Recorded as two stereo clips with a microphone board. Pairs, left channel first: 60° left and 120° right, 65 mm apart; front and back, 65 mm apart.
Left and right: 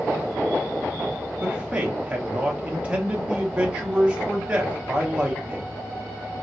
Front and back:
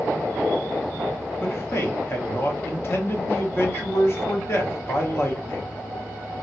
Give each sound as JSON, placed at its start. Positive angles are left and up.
{"t": 1.4, "sound": "a man speaking", "azimuth_deg": -50, "distance_m": 1.0}